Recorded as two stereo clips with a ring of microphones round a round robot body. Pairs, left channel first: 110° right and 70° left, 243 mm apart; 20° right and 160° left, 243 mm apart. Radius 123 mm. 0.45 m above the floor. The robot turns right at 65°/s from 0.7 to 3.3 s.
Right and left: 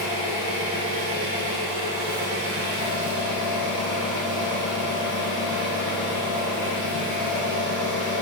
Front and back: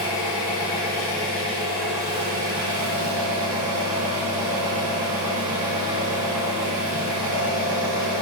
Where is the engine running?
5° right, 0.9 m; by 8.2 s 165° left, 0.9 m.